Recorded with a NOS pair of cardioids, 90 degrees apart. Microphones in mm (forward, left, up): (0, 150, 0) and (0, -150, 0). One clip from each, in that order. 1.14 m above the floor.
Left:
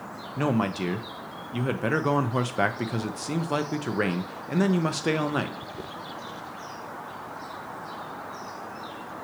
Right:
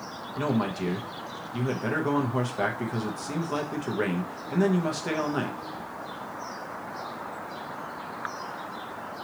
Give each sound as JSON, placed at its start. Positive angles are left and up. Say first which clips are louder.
{"t": 0.4, "sound": "a man speaking", "louder": "left 2 dB", "azimuth_deg": 30, "distance_m": 0.8}